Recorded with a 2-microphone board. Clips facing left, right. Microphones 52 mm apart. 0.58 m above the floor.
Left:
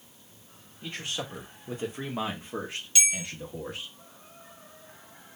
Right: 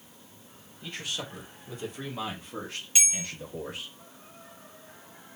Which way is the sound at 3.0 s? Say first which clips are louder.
Left 2 dB; 25° right (ahead or behind).